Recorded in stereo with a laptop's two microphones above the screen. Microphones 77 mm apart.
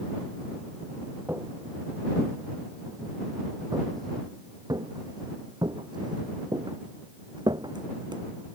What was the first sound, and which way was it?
Footsteps, 30° right (ahead or behind).